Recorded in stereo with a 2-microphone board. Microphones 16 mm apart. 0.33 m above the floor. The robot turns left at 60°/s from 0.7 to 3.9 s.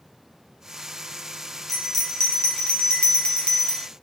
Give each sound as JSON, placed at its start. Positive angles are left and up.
{"t": 1.7, "sound": "a bell", "azimuth_deg": 175, "distance_m": 0.7}